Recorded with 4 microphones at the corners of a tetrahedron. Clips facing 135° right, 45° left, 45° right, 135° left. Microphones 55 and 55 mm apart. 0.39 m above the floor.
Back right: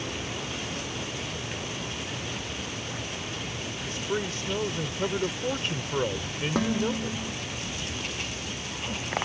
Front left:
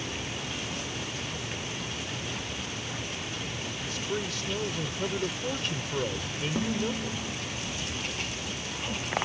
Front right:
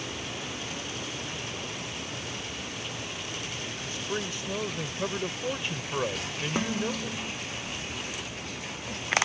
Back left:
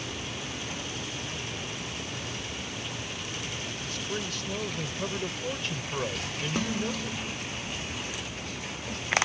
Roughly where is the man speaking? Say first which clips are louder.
Back right 3 dB, front right 2 dB; right.